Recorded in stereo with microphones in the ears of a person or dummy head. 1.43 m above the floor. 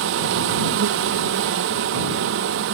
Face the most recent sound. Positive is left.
turn(degrees=-60)  # may be behind; listen again after turning